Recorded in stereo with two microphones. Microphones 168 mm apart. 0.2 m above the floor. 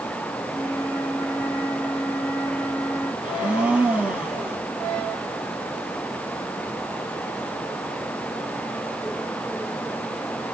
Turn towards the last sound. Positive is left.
turn(degrees=-5)  # may be behind; listen again after turning